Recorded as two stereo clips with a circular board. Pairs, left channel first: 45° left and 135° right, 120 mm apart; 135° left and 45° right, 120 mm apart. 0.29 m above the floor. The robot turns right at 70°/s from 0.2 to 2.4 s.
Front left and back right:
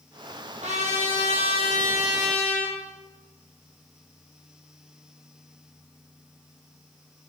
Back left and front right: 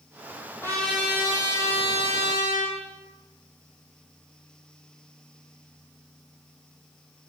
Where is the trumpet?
160° right, 5 m; by 2.8 s 35° right, 5 m.